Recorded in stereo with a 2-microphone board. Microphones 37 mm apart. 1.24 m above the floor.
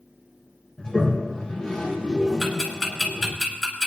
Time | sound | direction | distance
0.8 | a toilet flushing | 20° left (ahead or behind) | 1.9 m
2.4 | ticking | 10° left (ahead or behind) | 3 m